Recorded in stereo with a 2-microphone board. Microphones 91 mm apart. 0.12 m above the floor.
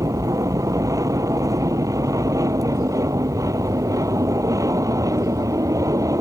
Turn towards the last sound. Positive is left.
turn(degrees=-35)  # may be behind; listen again after turning